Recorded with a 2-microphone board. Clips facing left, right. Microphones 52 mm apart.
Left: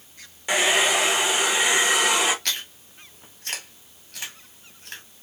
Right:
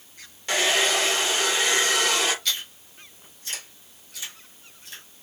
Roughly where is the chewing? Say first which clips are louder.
Even; left.